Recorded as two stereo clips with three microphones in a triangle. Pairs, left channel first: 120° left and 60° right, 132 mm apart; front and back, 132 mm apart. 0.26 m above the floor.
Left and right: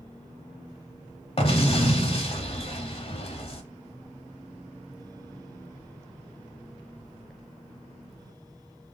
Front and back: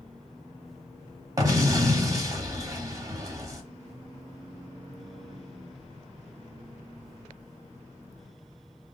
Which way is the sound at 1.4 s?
130° left.